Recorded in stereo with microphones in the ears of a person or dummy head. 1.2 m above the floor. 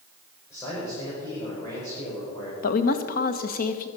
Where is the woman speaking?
50° left (ahead or behind), 1.2 m.